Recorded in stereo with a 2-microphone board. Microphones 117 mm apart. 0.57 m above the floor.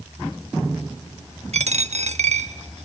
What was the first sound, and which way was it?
A dropped coin, 70° right (ahead or behind).